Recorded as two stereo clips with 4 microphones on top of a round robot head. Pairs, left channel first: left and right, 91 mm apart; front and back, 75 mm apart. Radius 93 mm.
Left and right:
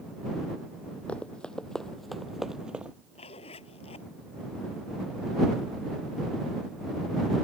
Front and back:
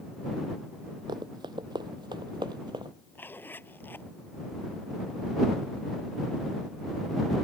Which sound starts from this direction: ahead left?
A zipper, at 3.1 s.